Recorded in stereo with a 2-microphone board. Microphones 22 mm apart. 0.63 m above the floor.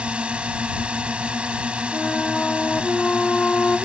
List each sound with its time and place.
0.0 s a drone: 65° right (ahead or behind)
1.9 s a flute: 80° left